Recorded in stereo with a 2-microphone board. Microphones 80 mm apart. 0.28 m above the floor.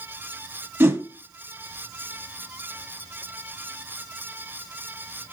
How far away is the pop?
I don't hear a pop.